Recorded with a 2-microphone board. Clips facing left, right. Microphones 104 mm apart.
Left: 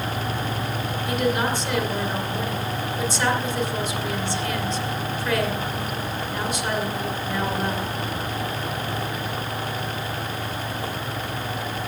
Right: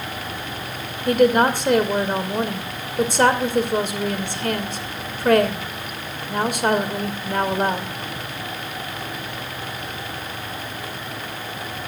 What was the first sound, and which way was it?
A woman speaking, 55° right (ahead or behind).